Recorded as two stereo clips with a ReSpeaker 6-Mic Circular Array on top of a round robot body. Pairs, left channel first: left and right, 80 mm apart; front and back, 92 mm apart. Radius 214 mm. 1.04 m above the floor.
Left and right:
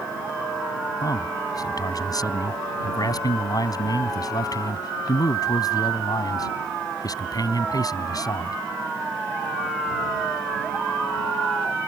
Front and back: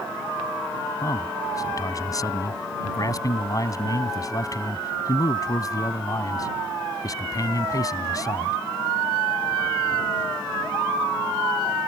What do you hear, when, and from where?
1.0 s a man speaking: 50° left